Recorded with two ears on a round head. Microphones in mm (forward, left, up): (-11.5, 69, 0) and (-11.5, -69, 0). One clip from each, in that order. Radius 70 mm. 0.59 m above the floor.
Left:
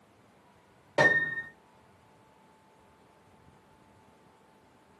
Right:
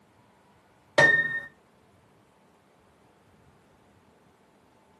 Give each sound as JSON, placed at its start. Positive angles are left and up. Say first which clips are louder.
{"t": 1.0, "sound": "a piano", "louder": "right 4 dB", "side_deg": -50, "distance_m": 0.6}